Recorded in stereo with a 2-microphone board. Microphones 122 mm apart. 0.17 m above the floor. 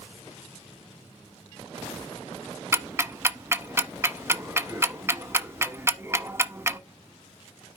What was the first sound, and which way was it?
Ticking, 20° right (ahead or behind).